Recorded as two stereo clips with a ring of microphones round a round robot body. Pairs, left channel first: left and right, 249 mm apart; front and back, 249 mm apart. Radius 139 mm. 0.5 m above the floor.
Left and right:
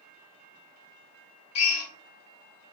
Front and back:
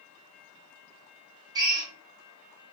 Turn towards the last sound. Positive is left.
turn(degrees=105)